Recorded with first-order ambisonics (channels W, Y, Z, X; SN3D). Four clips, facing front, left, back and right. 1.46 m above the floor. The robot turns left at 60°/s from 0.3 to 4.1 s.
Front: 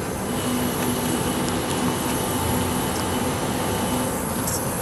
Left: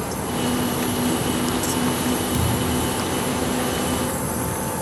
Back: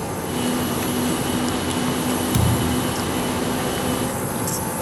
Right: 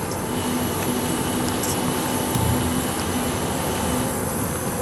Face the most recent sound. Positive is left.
turn(degrees=80)